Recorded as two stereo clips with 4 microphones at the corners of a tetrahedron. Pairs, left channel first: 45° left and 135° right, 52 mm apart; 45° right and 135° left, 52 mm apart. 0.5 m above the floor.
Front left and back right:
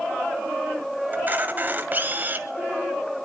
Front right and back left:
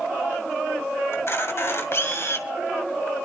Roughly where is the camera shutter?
Right.